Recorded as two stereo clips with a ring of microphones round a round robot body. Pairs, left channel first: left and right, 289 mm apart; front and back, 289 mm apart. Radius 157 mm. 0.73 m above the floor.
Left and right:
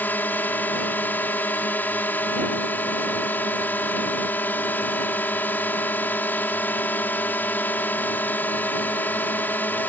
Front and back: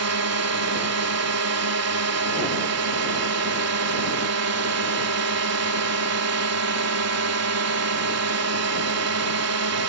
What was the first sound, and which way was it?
A drone, 175° left.